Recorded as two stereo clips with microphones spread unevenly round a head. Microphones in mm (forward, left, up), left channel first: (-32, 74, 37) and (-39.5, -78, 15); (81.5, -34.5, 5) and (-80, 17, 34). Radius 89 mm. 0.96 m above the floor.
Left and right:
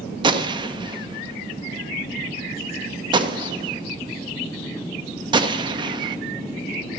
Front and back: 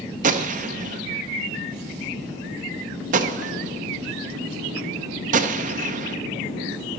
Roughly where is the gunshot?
Behind right.